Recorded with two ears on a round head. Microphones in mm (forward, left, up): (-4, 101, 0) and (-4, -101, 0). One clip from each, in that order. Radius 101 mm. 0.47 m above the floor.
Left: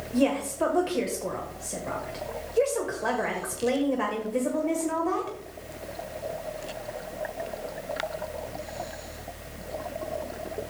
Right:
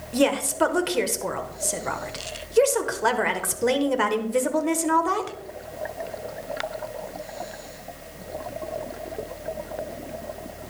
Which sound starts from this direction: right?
A woman speaking, at 0.1 s.